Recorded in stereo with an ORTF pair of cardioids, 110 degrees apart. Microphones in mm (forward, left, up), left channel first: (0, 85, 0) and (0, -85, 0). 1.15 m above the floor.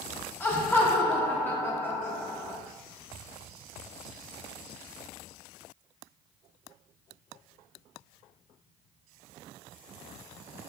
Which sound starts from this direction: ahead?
Laughter, at 0.4 s.